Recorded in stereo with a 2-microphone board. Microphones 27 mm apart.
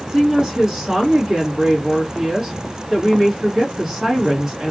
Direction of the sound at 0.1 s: 10° right (ahead or behind).